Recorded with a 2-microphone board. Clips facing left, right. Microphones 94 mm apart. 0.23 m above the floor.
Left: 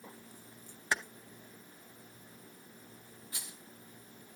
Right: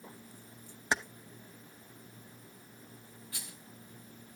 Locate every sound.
0.9 s keys jangling: 25° right (ahead or behind), 0.7 m
3.3 s a rattle: 25° left (ahead or behind), 3.5 m